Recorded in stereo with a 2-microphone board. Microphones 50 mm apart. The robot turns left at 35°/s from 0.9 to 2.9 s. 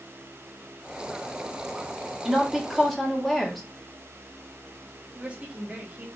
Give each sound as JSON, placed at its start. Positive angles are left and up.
{"t": 2.2, "sound": "a woman speaking", "side_deg": -10, "distance_m": 1.2}
{"t": 5.2, "sound": "a woman speaking", "side_deg": -25, "distance_m": 1.7}